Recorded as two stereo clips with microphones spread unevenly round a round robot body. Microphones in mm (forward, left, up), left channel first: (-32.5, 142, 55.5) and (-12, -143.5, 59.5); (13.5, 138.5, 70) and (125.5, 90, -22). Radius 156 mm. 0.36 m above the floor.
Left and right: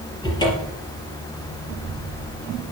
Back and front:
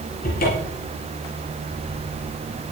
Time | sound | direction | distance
0.2 | a cupboard door | 170° left | 4 m